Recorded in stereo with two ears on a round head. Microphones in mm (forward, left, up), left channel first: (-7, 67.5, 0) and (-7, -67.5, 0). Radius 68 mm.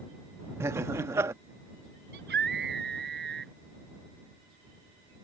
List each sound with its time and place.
0.6 s laughter: 15° right (ahead or behind)
2.1 s a scream: 80° right